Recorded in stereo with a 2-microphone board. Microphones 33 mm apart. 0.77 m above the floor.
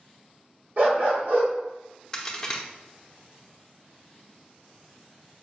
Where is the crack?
20° left (ahead or behind), 0.7 m.